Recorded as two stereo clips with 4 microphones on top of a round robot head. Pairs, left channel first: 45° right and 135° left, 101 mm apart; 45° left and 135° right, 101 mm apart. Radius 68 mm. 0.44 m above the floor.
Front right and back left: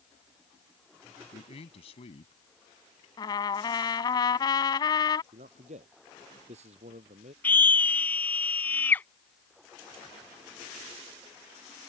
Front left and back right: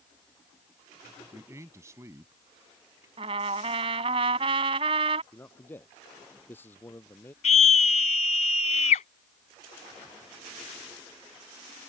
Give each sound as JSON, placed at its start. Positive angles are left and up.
{"t": 1.3, "sound": "a man speaking", "azimuth_deg": -70}
{"t": 3.2, "sound": "a trumpet", "azimuth_deg": -95}
{"t": 5.3, "sound": "a man speaking", "azimuth_deg": 115}
{"t": 7.4, "sound": "a scream", "azimuth_deg": 30}